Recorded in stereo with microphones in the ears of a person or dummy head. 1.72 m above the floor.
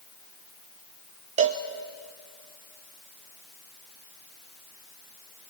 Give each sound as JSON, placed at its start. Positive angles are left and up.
{"t": 1.4, "sound": "a cowbell", "side_deg": -25, "distance_m": 0.7}